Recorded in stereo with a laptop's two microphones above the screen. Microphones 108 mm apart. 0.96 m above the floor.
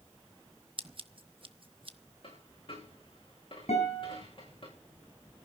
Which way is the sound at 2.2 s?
55° left (ahead or behind).